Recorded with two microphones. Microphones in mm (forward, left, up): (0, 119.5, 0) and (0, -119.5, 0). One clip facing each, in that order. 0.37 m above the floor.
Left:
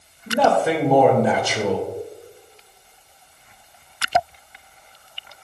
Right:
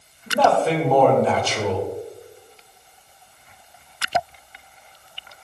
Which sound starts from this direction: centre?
A man speaking, at 0.3 s.